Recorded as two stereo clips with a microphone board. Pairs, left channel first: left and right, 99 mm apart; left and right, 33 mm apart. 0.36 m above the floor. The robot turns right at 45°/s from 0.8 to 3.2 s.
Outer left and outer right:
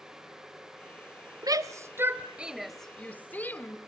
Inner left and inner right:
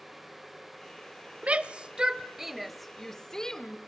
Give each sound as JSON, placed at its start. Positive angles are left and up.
{"t": 1.4, "sound": "a shout", "side_deg": -40, "distance_m": 1.3}